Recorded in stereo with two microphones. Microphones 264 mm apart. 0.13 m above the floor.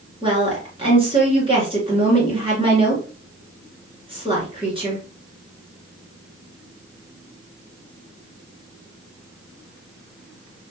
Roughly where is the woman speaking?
Centre.